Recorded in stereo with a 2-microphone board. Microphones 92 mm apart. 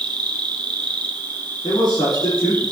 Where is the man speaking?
50° left (ahead or behind), 2.5 m.